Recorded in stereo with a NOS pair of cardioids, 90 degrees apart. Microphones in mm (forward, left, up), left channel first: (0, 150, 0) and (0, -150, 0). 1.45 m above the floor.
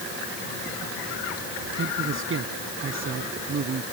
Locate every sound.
1.8 s a man speaking: 45° right